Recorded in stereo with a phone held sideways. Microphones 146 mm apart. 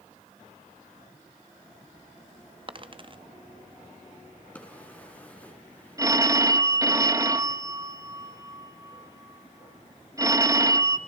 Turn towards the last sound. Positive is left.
turn(degrees=-20)  # may be behind; listen again after turning